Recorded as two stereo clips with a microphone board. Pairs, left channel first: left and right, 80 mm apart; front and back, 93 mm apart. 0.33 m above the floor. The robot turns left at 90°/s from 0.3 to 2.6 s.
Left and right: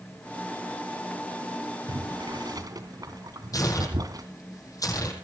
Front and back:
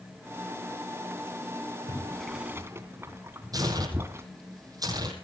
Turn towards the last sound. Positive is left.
turn(degrees=135)